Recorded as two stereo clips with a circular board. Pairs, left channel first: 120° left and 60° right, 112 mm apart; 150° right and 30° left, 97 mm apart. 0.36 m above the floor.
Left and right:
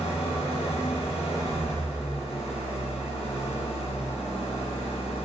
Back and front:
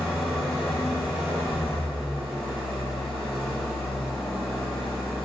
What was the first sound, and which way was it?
An engine running, 125° left.